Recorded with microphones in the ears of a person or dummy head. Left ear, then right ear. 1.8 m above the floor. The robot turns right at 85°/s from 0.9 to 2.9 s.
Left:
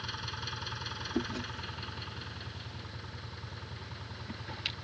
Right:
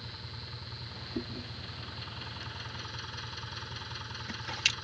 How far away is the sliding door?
I don't hear a sliding door.